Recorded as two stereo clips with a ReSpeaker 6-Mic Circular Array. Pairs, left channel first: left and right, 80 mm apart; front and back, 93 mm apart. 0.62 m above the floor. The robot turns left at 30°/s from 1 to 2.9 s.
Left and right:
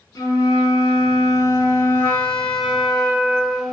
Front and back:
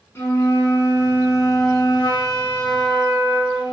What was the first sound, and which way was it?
A flute, 55° left.